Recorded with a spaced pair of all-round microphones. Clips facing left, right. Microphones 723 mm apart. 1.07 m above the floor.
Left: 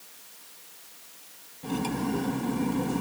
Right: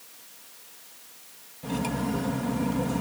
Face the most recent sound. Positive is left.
turn(degrees=-15)  # may be behind; listen again after turning